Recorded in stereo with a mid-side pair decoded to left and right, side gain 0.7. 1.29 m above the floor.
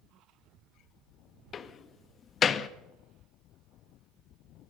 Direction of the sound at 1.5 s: 35° left.